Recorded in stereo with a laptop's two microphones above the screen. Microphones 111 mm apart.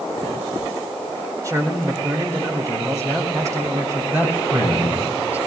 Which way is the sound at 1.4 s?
30° right (ahead or behind).